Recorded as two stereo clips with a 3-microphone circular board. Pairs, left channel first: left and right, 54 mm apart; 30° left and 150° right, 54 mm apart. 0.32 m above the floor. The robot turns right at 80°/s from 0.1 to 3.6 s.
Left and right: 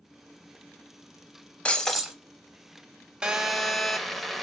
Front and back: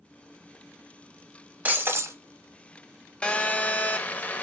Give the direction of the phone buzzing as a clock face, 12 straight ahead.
1 o'clock.